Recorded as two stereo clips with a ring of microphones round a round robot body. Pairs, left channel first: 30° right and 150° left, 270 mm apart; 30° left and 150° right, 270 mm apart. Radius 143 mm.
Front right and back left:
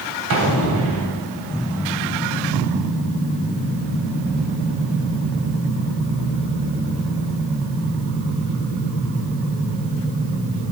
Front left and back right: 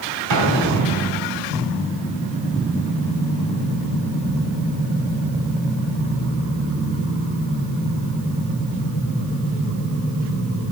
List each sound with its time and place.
0.3 s an explosion: 170° right, 2.5 m